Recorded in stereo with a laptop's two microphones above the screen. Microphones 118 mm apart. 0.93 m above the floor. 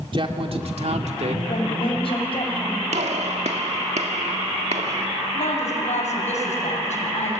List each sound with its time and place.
0.1 s a man speaking: 45° right (ahead or behind), 2.5 m; by 1.4 s 80° right, 2.5 m
1.5 s a woman speaking: 55° left (ahead or behind), 6 m
2.9 s a gunshot: 75° right (ahead or behind), 2.0 m
5.3 s a woman speaking: 85° left, 6.5 m